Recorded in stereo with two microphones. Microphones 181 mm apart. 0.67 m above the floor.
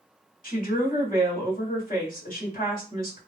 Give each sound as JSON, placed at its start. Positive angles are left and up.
{"t": 0.4, "sound": "a woman speaking", "side_deg": 50, "distance_m": 1.8}